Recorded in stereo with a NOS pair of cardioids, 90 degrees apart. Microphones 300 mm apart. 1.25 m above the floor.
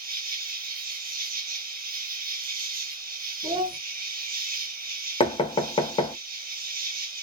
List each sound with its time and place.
0.0 s an insect: 30° right, 0.8 m
3.4 s a child speaking: 20° right, 0.6 m
5.2 s knocking: 15° left, 0.7 m